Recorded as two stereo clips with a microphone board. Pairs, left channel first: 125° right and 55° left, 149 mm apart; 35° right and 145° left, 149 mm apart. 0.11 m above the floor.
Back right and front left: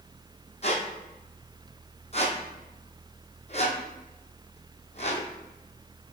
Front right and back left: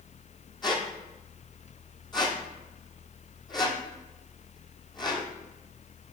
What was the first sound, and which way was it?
A squeak, 90° right.